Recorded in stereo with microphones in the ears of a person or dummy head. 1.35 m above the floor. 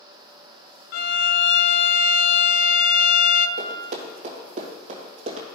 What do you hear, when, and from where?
0.9 s a violin: 55° left (ahead or behind), 0.6 m
3.6 s running footsteps: 50° right (ahead or behind), 2.0 m; by 5.5 s 40° right (ahead or behind), 2 m